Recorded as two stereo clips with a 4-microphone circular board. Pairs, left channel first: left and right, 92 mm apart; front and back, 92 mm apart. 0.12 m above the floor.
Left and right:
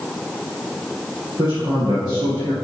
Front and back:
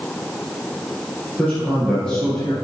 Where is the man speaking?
80° right, 3 m.